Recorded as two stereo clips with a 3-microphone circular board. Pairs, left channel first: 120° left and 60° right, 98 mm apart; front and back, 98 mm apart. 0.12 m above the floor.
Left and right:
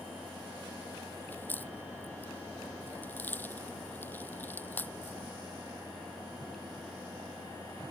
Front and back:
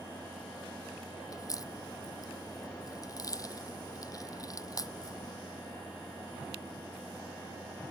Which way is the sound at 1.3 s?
50° left.